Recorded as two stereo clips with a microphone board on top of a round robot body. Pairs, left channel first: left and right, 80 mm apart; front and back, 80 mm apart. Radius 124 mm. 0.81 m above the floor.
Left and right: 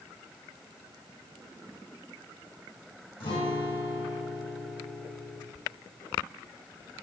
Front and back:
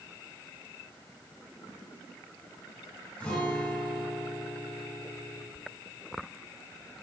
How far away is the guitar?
About 3 m.